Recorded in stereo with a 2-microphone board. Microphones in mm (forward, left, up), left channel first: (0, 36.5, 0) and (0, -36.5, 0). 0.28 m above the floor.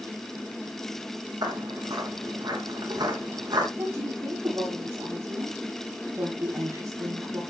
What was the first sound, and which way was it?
Footsteps, 70° right (ahead or behind).